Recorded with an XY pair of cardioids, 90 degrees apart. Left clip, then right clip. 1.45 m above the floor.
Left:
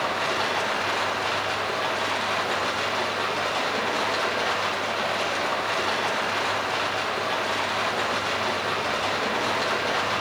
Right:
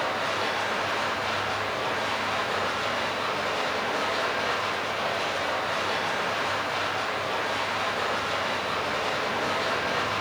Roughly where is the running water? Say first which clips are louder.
Left 2 dB; ahead left.